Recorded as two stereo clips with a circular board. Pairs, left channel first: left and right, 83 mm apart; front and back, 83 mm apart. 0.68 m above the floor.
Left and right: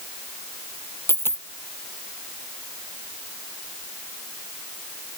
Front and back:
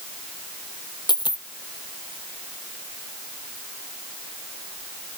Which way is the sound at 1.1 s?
30° left.